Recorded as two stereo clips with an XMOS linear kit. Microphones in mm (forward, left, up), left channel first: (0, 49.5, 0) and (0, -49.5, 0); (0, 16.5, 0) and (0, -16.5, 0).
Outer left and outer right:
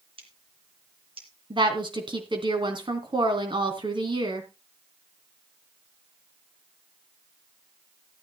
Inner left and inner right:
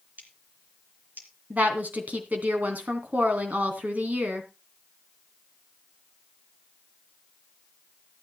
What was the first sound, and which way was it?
Scissors, 65° right (ahead or behind).